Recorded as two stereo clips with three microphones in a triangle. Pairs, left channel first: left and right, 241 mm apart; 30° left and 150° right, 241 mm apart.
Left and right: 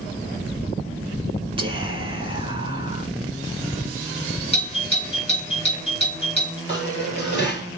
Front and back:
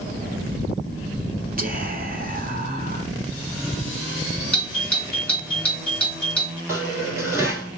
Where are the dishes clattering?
130° left, 2 m.